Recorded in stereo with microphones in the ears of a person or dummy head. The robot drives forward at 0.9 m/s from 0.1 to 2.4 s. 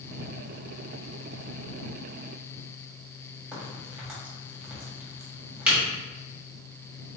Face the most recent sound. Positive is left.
turn(degrees=-5)  # may be behind; listen again after turning